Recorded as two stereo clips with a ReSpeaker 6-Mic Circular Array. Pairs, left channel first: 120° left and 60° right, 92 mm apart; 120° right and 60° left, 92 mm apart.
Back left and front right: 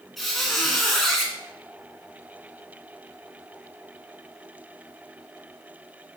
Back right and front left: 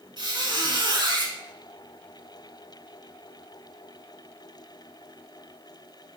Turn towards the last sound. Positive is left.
turn(degrees=30)